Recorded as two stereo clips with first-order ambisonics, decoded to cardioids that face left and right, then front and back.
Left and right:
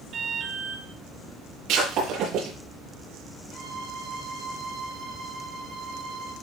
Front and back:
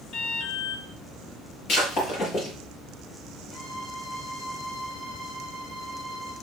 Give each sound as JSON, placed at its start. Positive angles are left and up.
{"t": 0.1, "sound": "an alarm", "azimuth_deg": -40, "distance_m": 3.5}
{"t": 1.7, "sound": "breaking glass", "azimuth_deg": -50, "distance_m": 7.0}
{"t": 3.5, "sound": "a violin", "azimuth_deg": -40, "distance_m": 3.5}